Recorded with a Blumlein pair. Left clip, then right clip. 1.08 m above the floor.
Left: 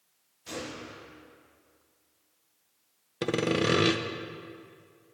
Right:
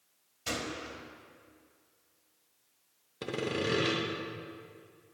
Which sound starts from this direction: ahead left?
Sawing, at 3.2 s.